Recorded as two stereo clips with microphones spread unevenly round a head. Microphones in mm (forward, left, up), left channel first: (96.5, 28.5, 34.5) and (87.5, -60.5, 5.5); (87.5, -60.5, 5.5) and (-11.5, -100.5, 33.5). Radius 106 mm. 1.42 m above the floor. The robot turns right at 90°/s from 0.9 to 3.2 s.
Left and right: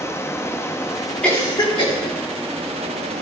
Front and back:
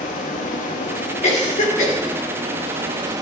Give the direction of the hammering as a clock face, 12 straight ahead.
I don't hear hammering.